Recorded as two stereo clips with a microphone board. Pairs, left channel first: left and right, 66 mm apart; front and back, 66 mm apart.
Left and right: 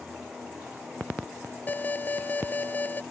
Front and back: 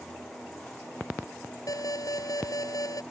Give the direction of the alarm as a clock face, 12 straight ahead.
11 o'clock.